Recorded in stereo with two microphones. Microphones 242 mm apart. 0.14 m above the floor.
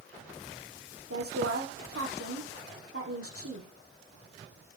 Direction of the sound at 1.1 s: 70° right (ahead or behind).